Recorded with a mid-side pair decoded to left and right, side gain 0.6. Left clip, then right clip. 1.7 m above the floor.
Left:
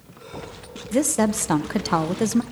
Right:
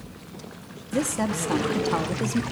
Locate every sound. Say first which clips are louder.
0.9 s a woman speaking: left 5 dB; 35° left, 0.8 m